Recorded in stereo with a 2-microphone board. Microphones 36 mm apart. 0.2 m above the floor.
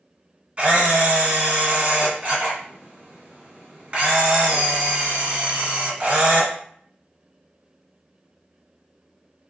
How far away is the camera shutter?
About 1.8 m.